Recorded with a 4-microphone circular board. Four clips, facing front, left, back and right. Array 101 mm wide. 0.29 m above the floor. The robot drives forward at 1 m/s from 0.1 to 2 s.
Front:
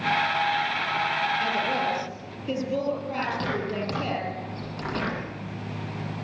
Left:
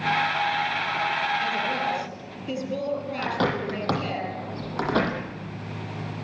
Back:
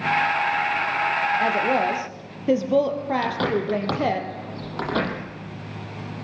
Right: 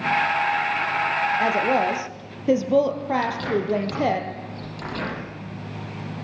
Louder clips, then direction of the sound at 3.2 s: Right 2 dB, back 5 dB; 120° left.